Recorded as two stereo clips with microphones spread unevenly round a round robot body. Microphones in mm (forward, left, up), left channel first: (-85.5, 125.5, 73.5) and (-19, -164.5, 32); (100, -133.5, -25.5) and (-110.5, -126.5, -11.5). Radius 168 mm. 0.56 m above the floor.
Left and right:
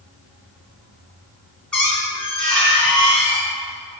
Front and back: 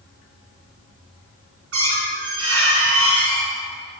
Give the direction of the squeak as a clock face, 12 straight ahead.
6 o'clock.